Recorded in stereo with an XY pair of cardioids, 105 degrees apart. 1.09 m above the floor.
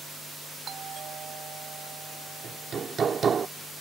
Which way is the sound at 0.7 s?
55° right.